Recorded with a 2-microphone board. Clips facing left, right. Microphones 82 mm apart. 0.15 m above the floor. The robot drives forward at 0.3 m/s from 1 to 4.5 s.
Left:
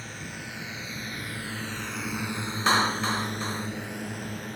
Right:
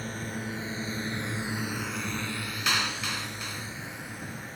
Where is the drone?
40° right (ahead or behind); by 4.6 s 65° left (ahead or behind).